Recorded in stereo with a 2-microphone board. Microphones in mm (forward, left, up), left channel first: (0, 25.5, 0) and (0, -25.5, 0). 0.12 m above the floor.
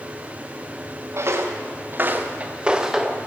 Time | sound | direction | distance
1.1 | footsteps | 60° right (ahead or behind) | 1.2 m